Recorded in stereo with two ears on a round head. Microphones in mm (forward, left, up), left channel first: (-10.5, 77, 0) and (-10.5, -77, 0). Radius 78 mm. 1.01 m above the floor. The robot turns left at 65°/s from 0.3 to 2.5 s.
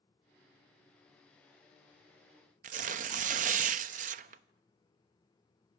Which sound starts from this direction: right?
Tearing paper, at 2.6 s.